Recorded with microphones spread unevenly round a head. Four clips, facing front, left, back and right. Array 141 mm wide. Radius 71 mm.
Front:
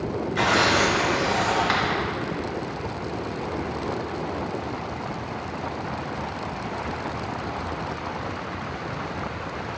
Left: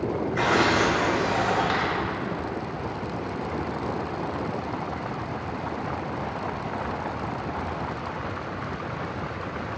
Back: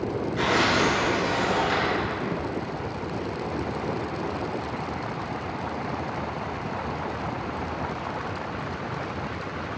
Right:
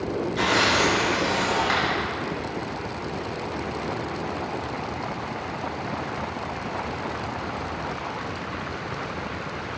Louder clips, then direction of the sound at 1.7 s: Right 1 dB, front 2 dB; 10° right.